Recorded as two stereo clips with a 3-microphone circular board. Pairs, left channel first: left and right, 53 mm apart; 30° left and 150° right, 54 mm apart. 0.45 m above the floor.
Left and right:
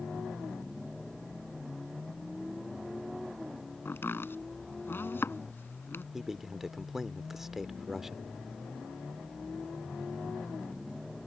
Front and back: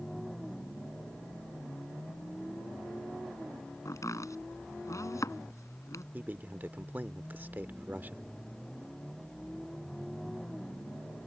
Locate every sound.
3.9 s chopping: 45° left
6.1 s a man speaking: 170° right